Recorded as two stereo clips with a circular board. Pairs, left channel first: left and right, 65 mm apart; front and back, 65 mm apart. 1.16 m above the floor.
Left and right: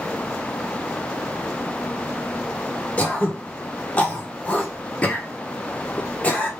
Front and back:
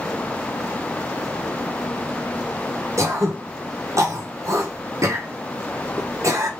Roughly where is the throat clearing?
Behind.